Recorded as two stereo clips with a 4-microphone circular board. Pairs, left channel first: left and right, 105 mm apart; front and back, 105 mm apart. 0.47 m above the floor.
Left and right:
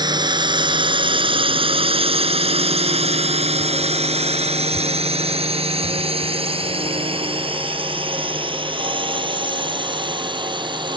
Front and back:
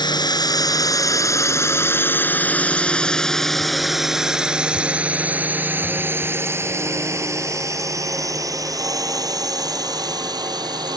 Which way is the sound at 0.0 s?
45° right.